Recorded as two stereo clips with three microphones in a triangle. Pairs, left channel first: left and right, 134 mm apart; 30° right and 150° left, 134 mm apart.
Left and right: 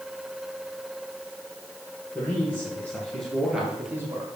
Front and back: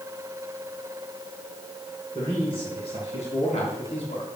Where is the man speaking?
15° left, 4.5 m; by 4.2 s 30° right, 2 m.